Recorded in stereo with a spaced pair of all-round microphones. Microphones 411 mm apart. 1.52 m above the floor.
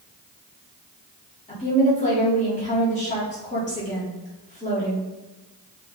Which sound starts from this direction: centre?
A woman speaking, at 1.5 s.